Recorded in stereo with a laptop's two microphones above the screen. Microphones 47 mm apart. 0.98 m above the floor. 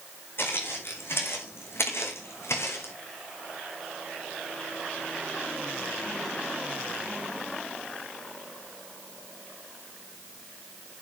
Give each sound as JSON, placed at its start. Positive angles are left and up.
{"t": 0.4, "sound": "footsteps", "side_deg": 55, "distance_m": 4.0}